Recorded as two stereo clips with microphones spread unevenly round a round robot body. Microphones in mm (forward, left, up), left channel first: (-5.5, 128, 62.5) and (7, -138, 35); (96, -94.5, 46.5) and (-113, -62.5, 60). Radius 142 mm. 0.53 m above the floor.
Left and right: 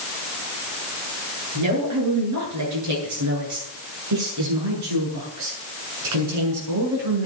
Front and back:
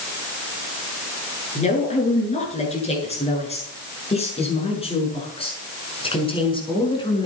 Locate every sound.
1.6 s a woman speaking: 65° right, 9 m; by 7.3 s 75° right, 6.5 m